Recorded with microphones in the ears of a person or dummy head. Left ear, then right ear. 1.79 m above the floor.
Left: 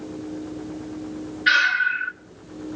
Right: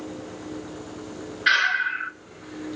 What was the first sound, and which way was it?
Breathing, 15° right (ahead or behind).